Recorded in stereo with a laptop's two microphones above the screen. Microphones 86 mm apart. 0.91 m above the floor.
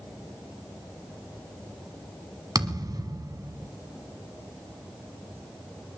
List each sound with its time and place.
2.5 s a thud: 55° right (ahead or behind), 1.4 m